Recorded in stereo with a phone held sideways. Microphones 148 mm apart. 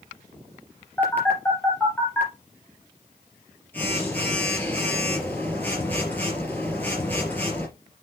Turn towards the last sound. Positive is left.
turn(degrees=10)  # may be behind; listen again after turning